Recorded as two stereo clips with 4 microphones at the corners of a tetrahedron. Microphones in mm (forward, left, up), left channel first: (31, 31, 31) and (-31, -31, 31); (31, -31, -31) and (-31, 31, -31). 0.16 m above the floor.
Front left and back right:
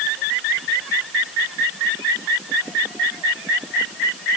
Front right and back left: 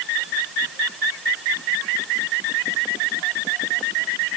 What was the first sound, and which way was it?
Only background noise.